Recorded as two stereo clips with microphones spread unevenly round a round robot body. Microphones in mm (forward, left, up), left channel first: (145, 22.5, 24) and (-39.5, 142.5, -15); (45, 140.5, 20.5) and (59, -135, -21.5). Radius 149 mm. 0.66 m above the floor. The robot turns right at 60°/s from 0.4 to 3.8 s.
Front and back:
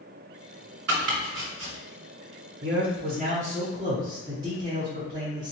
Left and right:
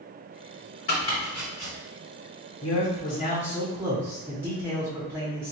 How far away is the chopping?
About 1.4 m.